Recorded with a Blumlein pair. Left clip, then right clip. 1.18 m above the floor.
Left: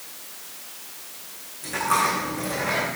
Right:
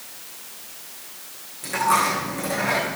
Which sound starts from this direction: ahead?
A dropped coin, at 1.6 s.